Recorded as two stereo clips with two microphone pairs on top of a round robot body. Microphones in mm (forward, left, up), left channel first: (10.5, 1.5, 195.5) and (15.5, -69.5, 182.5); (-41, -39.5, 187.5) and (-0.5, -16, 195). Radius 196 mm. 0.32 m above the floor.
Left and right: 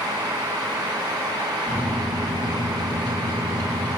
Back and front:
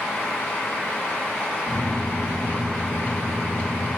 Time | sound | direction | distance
1.7 | a microwave | 170° left | 3.5 m